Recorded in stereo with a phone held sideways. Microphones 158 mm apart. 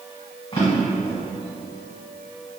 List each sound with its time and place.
0.5 s a drawer: 30° left (ahead or behind), 1.3 m